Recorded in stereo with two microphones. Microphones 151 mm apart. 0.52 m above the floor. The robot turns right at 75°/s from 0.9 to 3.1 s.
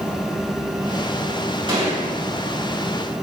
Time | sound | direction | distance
1.7 | a gunshot | 35° right (ahead or behind) | 3 m